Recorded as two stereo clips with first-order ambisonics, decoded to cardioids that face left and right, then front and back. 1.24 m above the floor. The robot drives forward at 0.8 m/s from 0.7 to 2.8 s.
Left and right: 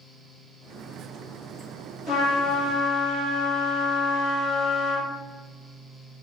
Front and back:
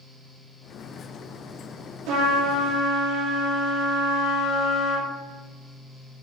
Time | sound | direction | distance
2.1 | a trumpet | straight behind | 1.2 m